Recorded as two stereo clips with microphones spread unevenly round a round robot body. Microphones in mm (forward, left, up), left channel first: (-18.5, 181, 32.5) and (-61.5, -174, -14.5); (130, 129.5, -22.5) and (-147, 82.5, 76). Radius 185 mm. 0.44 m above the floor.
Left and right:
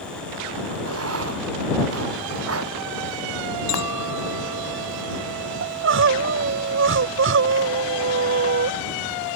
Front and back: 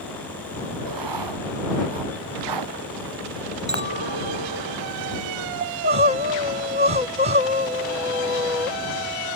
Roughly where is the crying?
Right.